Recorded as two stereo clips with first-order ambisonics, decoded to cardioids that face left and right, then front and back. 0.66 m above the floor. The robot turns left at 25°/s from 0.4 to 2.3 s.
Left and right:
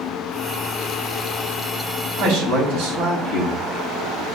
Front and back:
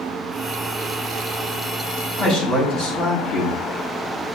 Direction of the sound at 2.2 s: 60° right.